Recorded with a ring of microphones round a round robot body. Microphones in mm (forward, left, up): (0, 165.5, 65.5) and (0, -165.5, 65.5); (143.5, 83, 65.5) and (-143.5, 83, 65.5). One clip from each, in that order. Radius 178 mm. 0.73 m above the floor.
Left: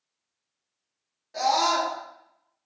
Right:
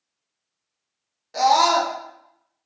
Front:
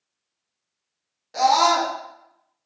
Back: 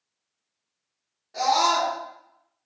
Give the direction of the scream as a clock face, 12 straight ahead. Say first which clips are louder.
Right 6 dB, front 4 dB; 1 o'clock.